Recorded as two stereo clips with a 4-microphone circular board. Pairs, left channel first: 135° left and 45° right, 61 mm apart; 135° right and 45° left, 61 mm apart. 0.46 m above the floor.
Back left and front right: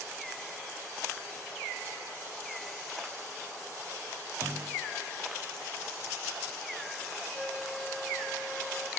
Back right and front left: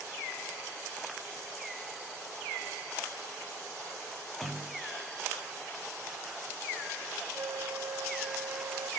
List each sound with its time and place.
4.4 s a clunk: 40° right, 1.6 m
7.3 s a flute: 55° left, 0.6 m